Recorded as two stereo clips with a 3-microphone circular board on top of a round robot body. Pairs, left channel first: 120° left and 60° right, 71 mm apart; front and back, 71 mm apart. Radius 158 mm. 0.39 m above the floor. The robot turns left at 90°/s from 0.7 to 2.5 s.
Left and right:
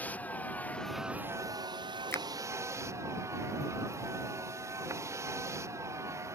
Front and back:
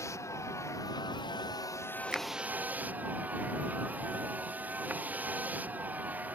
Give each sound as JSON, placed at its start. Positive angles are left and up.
{"t": 0.0, "sound": "a vehicle", "azimuth_deg": 50}
{"t": 2.1, "sound": "a finger snap", "azimuth_deg": 110}